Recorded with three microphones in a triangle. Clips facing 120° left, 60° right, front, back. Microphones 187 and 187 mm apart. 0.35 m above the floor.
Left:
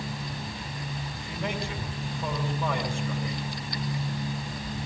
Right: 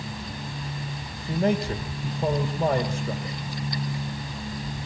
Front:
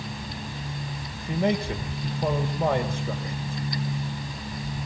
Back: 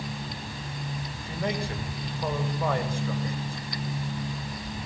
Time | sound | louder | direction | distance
1.2 | a man speaking | right 10 dB, front 7 dB | 60° right | 2 m